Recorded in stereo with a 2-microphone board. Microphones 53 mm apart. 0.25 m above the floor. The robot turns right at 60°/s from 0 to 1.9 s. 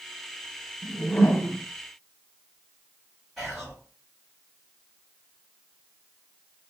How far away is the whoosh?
About 1.3 m.